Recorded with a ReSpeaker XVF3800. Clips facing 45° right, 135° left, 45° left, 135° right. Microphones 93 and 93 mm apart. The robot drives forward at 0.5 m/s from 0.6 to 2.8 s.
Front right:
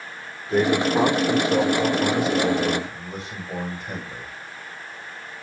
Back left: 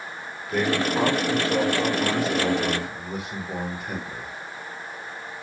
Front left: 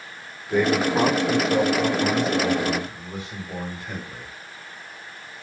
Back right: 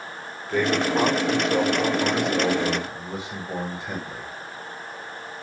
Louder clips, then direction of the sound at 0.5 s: Front right 4 dB, front left 2 dB; 20° right.